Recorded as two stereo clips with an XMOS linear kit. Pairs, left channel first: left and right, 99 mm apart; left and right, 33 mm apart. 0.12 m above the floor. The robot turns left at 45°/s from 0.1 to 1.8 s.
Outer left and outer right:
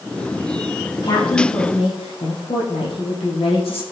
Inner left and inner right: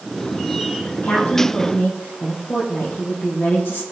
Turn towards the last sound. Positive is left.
turn(degrees=95)